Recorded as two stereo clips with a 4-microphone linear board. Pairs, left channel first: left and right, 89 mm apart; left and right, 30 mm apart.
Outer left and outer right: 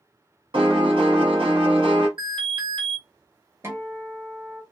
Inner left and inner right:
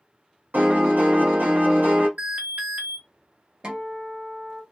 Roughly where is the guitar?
Right.